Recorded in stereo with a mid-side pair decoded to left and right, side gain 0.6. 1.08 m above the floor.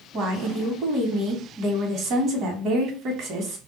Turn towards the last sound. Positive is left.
turn(degrees=-60)